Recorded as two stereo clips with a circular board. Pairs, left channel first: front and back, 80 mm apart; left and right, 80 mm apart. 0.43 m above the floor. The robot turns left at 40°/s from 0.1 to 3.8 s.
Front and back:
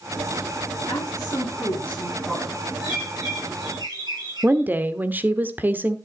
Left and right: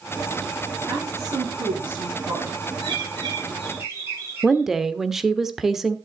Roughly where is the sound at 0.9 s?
Ahead right.